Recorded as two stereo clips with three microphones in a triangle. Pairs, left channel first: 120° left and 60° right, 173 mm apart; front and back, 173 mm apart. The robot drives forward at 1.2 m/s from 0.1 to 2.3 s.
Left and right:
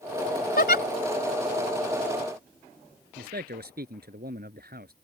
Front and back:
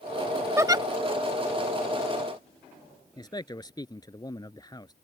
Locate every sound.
0.6 s a giggle: 105° left; by 0.8 s 120° left
3.2 s a man speaking: 65° right